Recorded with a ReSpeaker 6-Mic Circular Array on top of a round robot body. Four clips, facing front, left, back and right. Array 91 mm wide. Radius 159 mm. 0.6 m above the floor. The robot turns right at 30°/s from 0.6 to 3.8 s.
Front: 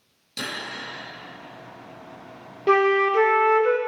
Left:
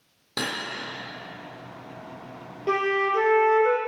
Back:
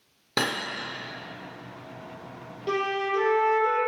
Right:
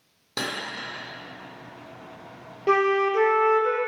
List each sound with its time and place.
0.4 s cutlery clinking: straight behind, 1.0 m
2.7 s a flute: 20° right, 0.8 m; by 3.8 s 15° left, 0.8 m